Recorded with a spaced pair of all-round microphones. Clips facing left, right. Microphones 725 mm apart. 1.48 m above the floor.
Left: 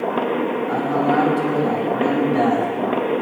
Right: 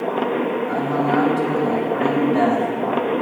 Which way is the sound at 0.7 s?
10° right (ahead or behind).